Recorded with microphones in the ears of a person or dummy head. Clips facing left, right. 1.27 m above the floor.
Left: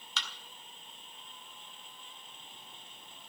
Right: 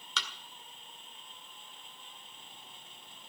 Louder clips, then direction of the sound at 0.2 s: Right 2 dB; 65° right (ahead or behind).